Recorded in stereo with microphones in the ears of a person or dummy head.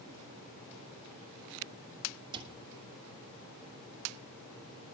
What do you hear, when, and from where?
2.3 s a cupboard door: 30° right (ahead or behind), 2.5 m